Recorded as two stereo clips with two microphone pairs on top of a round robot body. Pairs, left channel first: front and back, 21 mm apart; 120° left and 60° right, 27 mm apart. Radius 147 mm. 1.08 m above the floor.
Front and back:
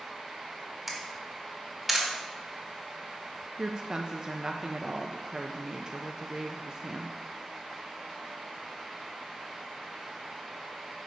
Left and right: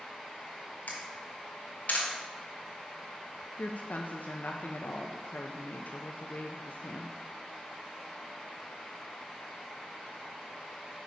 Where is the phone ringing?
I don't hear a phone ringing.